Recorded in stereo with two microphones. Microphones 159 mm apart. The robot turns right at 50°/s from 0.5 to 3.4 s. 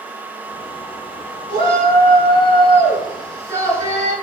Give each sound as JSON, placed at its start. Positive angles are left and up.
{"t": 1.5, "sound": "a shout", "azimuth_deg": -115, "distance_m": 4.5}